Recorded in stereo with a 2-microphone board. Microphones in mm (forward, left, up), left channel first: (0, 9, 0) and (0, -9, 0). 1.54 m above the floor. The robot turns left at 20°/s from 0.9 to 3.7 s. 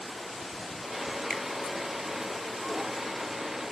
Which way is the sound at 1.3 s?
50° left (ahead or behind).